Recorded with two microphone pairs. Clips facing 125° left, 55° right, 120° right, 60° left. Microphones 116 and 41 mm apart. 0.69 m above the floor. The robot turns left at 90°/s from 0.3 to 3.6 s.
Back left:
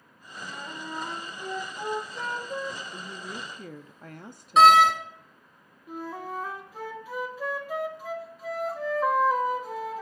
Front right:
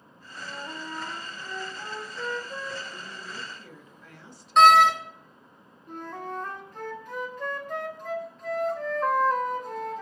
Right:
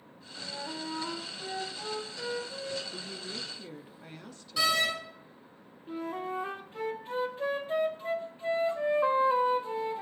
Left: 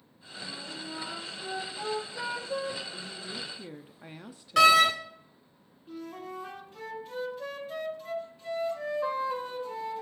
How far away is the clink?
No clink in this recording.